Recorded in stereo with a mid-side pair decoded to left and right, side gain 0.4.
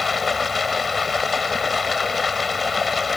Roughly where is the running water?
Ahead left.